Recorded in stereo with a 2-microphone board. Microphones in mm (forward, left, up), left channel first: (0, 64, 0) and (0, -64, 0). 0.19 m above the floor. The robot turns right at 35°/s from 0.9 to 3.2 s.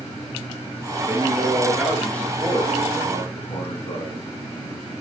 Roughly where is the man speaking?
Ahead right.